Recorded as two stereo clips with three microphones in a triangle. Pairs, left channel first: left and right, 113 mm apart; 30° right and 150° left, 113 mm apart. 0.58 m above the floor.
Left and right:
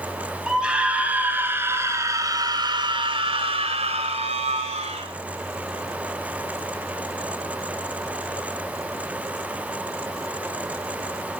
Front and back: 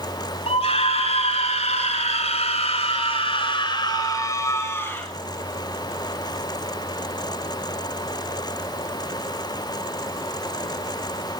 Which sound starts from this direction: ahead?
A scream, at 0.5 s.